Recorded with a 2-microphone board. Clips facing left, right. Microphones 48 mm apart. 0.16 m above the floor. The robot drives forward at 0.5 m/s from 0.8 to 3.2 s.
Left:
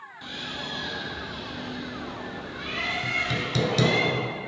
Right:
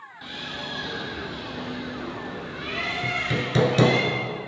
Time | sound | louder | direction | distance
0.2 | a bird | right 1 dB | 5° right (ahead or behind) | 1.0 m
3.0 | hammering | right 1 dB | 40° right (ahead or behind) | 0.6 m